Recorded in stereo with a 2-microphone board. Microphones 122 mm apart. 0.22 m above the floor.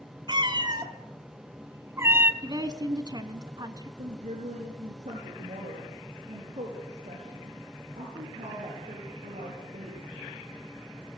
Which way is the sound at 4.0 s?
75° right (ahead or behind).